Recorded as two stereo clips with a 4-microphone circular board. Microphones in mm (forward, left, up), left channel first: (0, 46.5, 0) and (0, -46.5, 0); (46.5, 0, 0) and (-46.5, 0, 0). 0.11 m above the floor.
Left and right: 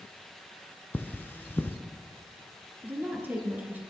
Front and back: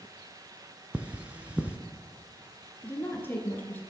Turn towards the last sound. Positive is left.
turn(degrees=-40)